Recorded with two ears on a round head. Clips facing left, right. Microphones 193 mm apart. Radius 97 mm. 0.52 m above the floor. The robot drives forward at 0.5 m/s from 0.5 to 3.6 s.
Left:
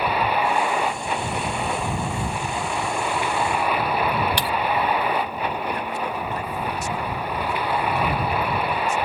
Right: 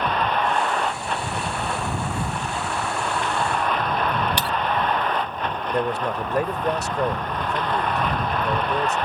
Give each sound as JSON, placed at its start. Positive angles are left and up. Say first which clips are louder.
{"t": 0.0, "sound": "a vehicle", "louder": "left 1 dB", "side_deg": 5}
{"t": 4.4, "sound": "breaking glass", "louder": "left 1 dB", "side_deg": -90}
{"t": 5.7, "sound": "a man speaking", "louder": "right 4 dB", "side_deg": -50}